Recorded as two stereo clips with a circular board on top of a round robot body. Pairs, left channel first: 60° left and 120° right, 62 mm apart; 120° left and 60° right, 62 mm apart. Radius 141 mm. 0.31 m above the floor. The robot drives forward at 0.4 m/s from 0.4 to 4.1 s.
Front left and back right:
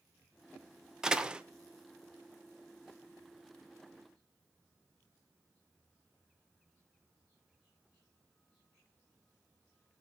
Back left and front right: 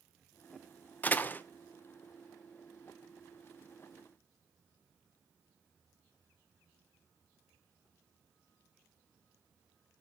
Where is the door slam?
165° left, 0.8 m; by 1.4 s 170° left, 0.8 m.